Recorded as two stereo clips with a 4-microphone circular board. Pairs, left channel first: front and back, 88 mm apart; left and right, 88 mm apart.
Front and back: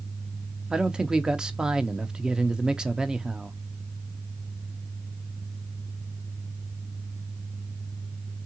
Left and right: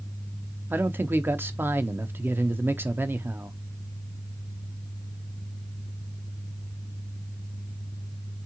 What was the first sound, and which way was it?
A man speaking, 110° right.